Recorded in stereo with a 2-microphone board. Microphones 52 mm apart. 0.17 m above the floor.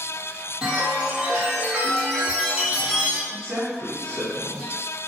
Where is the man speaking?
40° right (ahead or behind), 1.6 m.